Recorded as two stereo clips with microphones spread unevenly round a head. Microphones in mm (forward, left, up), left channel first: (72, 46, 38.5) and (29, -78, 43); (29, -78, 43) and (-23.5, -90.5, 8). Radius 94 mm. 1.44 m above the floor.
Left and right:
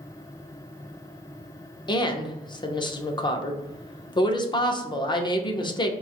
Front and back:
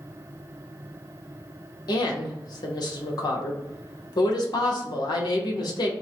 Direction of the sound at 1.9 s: 15° left.